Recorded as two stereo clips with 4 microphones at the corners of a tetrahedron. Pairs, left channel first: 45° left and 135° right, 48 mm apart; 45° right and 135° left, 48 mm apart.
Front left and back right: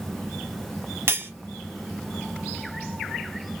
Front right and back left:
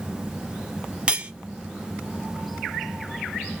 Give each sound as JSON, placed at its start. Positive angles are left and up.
{"t": 1.1, "sound": "cutlery clinking", "azimuth_deg": -160, "distance_m": 0.9}